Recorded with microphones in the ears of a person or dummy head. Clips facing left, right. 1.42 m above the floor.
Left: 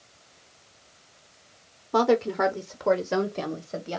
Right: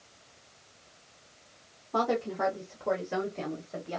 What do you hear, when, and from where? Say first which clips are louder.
1.9 s a woman speaking: left 7 dB; 60° left (ahead or behind), 0.7 m; by 4.0 s 50° left (ahead or behind), 1.0 m